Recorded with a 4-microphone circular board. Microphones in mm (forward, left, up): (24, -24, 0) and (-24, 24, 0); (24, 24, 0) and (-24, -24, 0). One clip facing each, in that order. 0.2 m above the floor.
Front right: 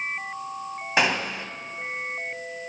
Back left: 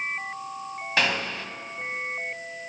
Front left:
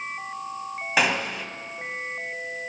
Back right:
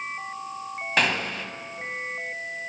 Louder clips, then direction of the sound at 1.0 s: Front right 2 dB, front left 1 dB; 20° right.